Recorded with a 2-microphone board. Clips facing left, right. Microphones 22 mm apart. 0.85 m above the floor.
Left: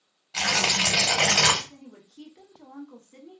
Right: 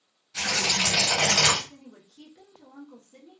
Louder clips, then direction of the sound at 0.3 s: Left 2 dB; 85° left.